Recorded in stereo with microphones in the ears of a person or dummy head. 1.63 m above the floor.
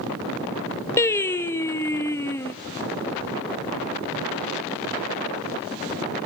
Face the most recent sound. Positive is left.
turn(degrees=15)  # may be behind; listen again after turning